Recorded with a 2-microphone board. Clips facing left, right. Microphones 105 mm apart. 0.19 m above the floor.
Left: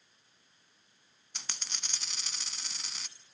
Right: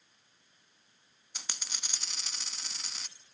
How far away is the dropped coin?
About 0.6 m.